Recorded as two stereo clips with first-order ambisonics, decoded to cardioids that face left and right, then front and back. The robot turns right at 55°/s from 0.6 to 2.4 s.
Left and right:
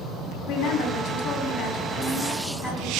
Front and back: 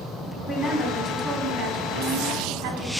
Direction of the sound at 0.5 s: 80° left.